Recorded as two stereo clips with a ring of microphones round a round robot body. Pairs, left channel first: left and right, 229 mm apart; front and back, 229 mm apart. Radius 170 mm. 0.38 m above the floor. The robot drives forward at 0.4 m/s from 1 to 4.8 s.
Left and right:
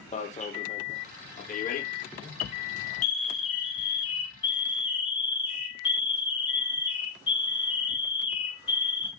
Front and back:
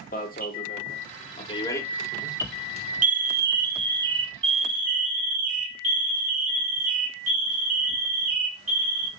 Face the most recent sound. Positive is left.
turn(degrees=160)